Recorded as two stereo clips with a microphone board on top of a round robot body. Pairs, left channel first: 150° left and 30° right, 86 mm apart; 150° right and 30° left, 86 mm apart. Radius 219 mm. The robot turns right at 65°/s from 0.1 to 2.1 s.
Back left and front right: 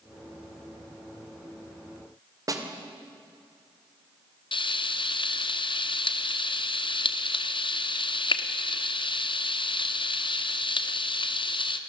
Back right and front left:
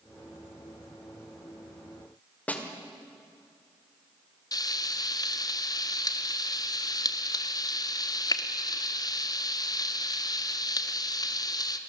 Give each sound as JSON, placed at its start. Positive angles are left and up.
{"t": 2.5, "sound": "a snare drum", "azimuth_deg": -80, "distance_m": 2.5}
{"t": 4.5, "sound": "frying", "azimuth_deg": 165, "distance_m": 1.4}